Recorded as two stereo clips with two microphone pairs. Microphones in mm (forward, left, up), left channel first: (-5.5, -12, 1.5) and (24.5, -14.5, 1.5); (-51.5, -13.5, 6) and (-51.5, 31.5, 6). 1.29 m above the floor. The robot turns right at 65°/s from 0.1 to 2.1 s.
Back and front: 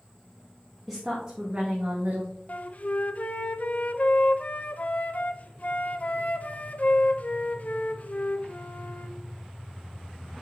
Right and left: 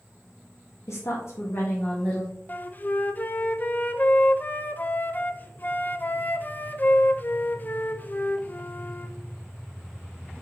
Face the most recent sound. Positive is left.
turn(degrees=-145)